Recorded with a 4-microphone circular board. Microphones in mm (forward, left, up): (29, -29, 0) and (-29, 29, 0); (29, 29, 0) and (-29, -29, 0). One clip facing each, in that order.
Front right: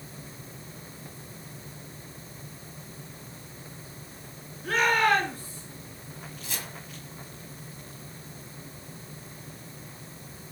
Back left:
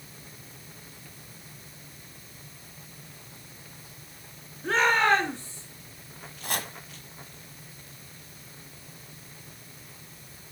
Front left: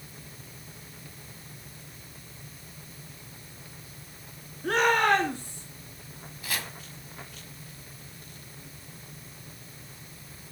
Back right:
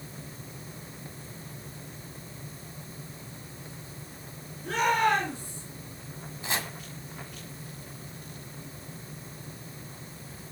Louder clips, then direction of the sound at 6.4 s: Back left 8 dB, back right 3 dB; 160° left.